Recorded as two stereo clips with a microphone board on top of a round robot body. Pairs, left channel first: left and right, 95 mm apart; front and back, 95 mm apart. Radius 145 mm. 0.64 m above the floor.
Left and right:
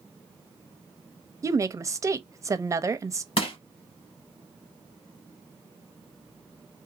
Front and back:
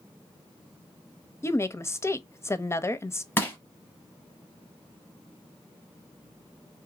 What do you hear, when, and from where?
1.4 s a woman speaking: 50° right, 0.7 m
3.4 s crushing: 65° left, 0.8 m